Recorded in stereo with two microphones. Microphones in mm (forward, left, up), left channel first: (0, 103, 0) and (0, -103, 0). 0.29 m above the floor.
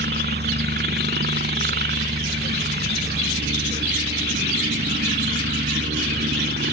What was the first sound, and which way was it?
A helicopter, 55° right (ahead or behind).